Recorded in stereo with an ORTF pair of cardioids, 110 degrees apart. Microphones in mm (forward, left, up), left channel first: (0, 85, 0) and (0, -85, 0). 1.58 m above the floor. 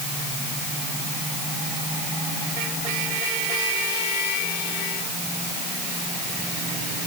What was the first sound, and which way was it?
Only background noise.